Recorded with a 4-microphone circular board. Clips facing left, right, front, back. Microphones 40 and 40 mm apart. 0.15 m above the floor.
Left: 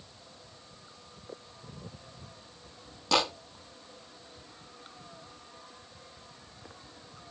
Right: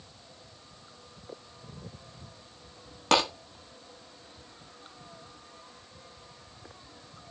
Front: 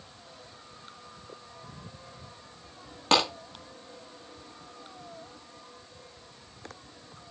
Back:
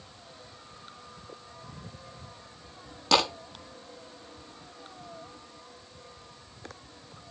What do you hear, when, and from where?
3.1 s a clap: 55° right, 7.5 m